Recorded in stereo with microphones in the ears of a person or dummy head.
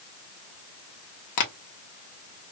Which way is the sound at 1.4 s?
55° left (ahead or behind).